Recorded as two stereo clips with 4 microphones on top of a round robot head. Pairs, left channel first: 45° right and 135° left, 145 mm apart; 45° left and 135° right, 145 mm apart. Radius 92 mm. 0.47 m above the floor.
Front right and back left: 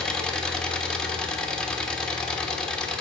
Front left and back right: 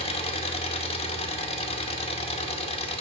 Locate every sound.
0.0 s an engine running: 35° left, 0.9 m